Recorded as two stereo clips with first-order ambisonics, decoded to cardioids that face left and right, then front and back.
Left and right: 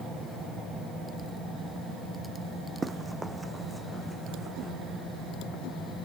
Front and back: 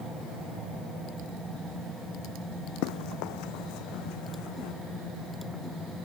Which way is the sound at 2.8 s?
10° right.